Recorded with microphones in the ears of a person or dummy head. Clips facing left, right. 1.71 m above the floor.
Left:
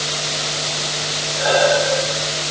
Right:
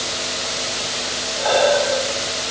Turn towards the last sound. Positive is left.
turn(degrees=20)  # may be behind; listen again after turning